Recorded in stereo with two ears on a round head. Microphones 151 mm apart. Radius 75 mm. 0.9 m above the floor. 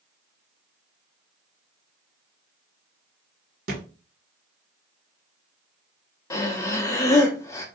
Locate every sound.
3.7 s a thud: 60° right (ahead or behind), 1.3 m
6.3 s breathing: 20° left (ahead or behind), 0.6 m